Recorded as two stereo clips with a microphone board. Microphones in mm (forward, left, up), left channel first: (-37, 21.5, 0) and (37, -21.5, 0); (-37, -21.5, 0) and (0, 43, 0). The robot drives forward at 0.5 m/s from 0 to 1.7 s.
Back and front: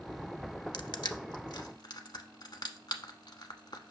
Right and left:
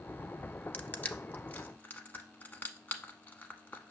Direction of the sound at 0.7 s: 170° left.